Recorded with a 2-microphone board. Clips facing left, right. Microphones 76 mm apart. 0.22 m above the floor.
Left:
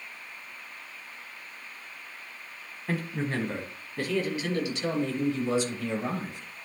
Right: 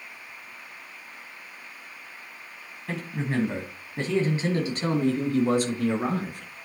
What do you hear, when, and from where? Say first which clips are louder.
2.9 s a man speaking: even; 5° left (ahead or behind), 1.6 m; by 6.5 s 65° right (ahead or behind), 3 m